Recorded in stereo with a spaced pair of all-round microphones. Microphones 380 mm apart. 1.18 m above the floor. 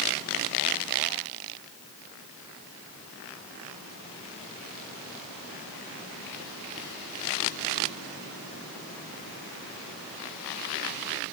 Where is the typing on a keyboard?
No typing on a keyboard in this recording.